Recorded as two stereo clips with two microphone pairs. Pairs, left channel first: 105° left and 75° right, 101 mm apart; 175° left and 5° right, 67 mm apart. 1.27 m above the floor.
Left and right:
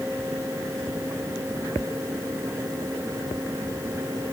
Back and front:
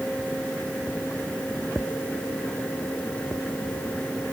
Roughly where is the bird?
I don't hear a bird.